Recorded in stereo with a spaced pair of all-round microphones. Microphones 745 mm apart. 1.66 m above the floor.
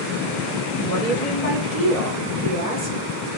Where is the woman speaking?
50° left (ahead or behind), 6.5 m.